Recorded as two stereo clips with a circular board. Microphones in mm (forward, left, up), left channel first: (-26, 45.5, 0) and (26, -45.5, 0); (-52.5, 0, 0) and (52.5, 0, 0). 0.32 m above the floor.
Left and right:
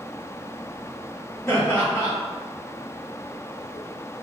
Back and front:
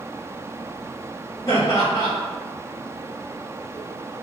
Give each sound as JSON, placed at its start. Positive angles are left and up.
{"t": 1.5, "sound": "laughter", "azimuth_deg": 170, "distance_m": 1.7}